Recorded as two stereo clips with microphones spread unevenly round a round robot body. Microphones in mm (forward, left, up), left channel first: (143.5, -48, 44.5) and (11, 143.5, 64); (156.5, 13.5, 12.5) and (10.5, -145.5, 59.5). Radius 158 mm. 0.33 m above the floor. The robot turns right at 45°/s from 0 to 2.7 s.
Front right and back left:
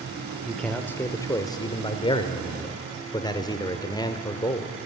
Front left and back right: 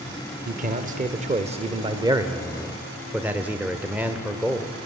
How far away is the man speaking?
About 1.1 m.